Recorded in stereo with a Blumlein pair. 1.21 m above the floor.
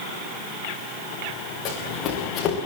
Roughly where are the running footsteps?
Ahead left.